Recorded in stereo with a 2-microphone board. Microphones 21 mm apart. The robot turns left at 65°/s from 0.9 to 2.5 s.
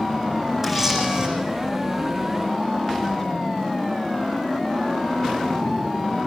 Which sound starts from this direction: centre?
A camera shutter, at 0.6 s.